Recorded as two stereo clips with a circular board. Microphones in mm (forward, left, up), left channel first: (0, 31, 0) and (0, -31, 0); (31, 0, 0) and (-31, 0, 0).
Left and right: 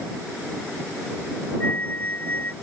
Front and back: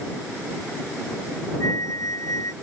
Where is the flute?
30° left.